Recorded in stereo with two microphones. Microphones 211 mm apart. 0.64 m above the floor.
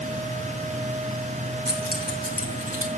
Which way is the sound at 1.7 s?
50° right (ahead or behind).